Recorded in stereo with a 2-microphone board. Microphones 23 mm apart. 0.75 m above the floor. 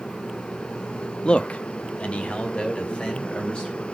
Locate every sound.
1.2 s a man speaking: 40° left (ahead or behind), 0.7 m; by 3.9 s 50° left (ahead or behind), 4 m